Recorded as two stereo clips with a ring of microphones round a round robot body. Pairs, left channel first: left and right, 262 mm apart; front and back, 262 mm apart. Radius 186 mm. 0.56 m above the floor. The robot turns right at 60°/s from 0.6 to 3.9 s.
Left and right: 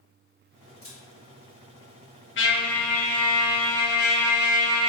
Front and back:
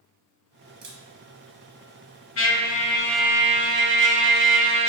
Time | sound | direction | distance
0.8 | a camera shutter | 170° right | 0.8 m
2.4 | a trumpet | 40° left | 0.6 m